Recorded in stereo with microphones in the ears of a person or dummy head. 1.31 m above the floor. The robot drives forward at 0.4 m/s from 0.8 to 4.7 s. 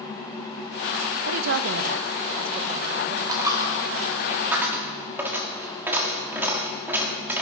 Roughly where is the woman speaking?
Right.